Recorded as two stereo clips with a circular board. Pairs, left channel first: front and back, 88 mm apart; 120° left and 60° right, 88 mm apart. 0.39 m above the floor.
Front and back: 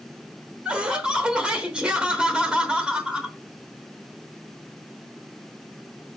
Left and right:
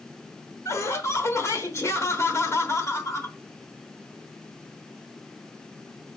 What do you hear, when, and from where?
0.7 s laughter: 110° left, 1.2 m